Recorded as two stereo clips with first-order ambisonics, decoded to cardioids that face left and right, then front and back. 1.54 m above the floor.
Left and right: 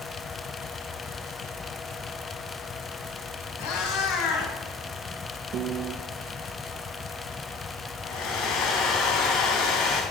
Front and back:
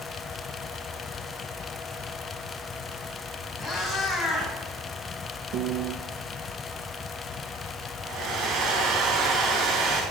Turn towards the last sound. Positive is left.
turn(degrees=125)